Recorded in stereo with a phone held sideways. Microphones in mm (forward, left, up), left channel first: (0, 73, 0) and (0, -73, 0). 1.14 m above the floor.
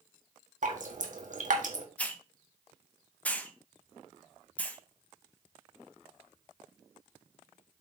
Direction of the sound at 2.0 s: 10° left (ahead or behind).